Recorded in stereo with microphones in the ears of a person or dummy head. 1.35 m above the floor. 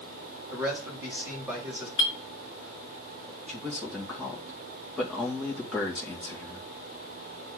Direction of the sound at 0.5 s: 10° right (ahead or behind).